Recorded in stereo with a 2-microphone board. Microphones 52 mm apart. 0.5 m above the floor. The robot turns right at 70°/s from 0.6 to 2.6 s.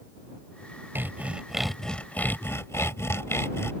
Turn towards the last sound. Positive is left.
turn(degrees=65)